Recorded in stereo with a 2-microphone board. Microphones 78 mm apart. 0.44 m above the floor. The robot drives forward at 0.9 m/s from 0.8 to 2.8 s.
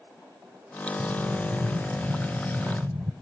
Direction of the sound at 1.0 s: 60° right (ahead or behind).